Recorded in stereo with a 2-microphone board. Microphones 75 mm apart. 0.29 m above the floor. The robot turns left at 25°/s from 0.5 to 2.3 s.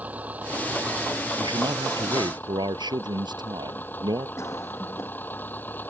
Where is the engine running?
160° right; by 5.9 s 155° left.